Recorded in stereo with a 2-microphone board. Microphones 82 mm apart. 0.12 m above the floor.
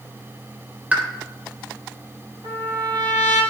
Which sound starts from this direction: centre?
A pop, at 0.9 s.